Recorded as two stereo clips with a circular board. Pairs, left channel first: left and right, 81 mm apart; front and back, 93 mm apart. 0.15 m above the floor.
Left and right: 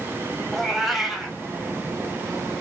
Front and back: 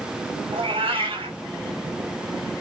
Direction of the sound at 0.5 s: 175° left.